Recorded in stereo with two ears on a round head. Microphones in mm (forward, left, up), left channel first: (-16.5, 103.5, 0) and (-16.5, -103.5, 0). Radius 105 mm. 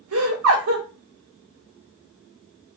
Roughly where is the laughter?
Right.